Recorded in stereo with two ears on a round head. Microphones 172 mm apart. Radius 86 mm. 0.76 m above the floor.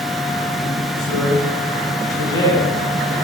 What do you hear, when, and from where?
1.0 s a man speaking: 20° left (ahead or behind), 6.5 m